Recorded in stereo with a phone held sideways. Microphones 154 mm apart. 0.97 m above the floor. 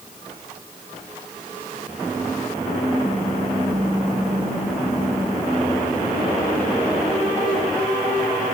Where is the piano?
No piano in this recording.